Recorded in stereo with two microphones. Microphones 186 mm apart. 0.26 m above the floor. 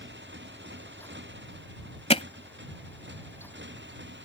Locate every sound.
0.0 s a motorcycle: 80° right
2.1 s hammering: 35° left (ahead or behind)